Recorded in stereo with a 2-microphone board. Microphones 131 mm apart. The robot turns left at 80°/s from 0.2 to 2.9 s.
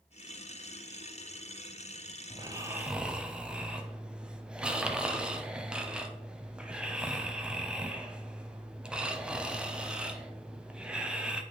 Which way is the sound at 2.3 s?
120° right.